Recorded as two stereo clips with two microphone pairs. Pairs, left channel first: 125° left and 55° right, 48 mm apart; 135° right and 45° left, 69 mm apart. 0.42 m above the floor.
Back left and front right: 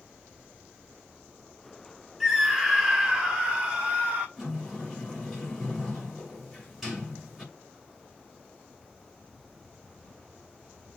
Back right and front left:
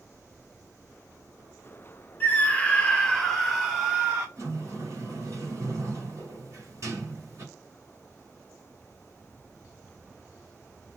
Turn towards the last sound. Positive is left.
turn(degrees=35)